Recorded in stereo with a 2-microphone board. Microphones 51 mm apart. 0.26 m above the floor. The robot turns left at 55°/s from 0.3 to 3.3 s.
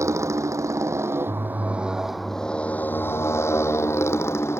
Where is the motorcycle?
75° right; by 4.6 s 120° left.